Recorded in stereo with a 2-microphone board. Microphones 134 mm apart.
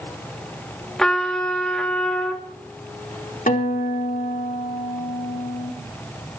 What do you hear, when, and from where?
1.0 s a trumpet: 5° left (ahead or behind), 2 m
3.5 s a guitar: 85° left, 3.5 m